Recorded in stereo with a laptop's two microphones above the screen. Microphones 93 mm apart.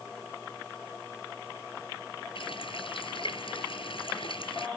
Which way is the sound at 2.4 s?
65° left (ahead or behind).